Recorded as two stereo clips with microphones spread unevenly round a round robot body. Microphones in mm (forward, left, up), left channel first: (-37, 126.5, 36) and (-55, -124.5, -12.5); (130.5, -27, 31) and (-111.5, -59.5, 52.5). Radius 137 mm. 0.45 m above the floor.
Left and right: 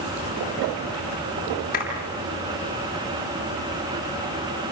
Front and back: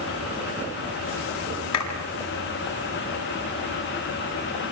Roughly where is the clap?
Ahead left.